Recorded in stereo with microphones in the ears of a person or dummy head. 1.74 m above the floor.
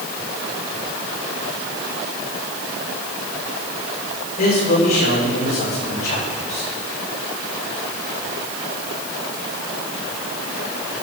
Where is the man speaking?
50° left (ahead or behind), 7.5 m.